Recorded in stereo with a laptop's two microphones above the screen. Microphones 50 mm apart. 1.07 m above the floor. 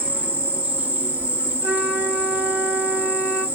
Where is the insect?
30° right (ahead or behind), 1.1 m.